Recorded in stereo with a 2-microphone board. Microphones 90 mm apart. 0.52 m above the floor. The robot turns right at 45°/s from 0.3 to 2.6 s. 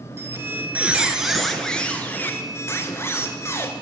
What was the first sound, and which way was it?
A squeak, 50° right.